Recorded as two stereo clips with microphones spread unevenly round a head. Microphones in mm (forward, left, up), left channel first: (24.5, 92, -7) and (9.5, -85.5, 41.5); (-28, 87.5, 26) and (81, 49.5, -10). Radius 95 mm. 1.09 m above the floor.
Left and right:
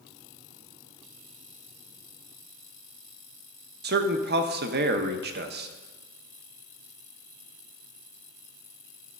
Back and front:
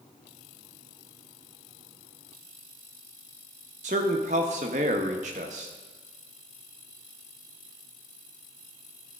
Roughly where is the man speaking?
Ahead right.